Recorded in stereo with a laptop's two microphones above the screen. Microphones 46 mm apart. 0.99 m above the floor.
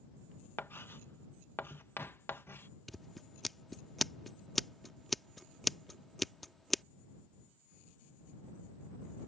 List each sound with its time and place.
0.6 s writing: 55° left (ahead or behind)
2.9 s scissors: centre (ahead or behind)